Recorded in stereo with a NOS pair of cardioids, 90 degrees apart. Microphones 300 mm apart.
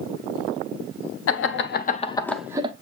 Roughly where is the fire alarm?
I don't hear a fire alarm.